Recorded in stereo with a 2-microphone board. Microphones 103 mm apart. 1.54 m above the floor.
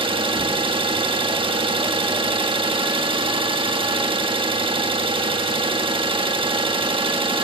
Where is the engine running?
60° right (ahead or behind), 1.4 m.